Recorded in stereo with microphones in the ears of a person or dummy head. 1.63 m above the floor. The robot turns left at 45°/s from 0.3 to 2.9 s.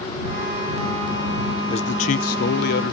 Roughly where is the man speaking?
Behind left.